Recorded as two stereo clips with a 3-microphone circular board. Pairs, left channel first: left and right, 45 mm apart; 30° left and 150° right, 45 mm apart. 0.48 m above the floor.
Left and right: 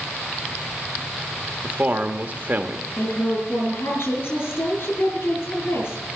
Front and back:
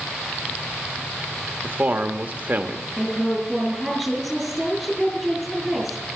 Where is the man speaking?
120° right, 1.0 m.